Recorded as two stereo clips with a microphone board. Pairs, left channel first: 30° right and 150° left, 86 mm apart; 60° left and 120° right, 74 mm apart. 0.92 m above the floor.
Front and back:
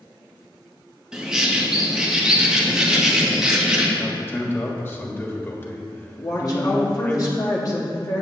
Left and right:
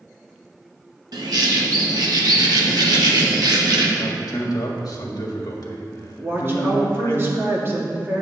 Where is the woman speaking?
65° right, 1.9 m.